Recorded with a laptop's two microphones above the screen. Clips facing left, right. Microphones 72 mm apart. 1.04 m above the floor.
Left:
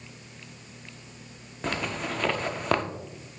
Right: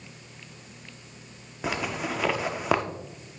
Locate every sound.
1.6 s a zipper: 5° right (ahead or behind), 0.7 m